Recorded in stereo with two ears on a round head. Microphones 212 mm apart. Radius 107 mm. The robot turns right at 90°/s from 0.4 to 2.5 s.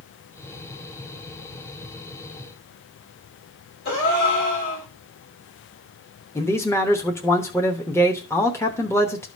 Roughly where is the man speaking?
Centre.